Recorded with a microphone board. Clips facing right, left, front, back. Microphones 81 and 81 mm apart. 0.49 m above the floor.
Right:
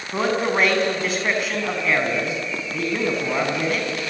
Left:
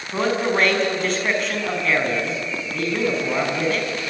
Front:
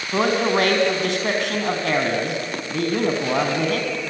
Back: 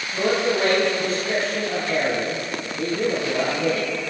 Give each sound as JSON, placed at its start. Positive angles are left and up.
{"t": 0.1, "sound": "a man speaking", "azimuth_deg": -5, "distance_m": 5.0}